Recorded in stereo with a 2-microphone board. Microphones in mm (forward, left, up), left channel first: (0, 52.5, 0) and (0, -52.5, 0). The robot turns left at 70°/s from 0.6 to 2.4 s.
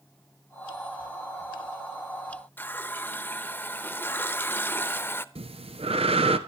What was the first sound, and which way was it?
A running tap, 20° left (ahead or behind).